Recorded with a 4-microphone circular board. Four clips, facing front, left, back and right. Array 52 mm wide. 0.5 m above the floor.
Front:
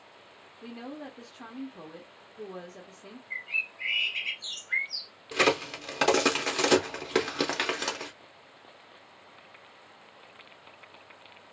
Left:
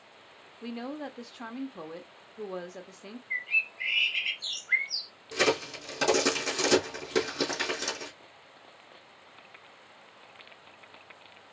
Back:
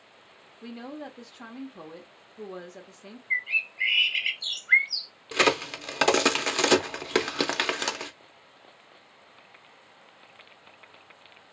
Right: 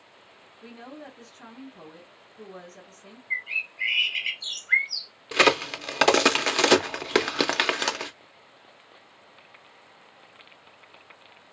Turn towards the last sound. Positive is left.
turn(degrees=-110)